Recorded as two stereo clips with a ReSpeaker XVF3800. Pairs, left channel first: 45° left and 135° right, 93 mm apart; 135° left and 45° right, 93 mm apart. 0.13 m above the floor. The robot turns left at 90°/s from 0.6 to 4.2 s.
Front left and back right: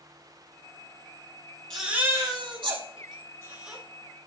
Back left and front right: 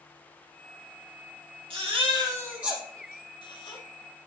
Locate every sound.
1.7 s a baby crying: 35° right, 3.5 m; by 3.8 s 135° left, 3.5 m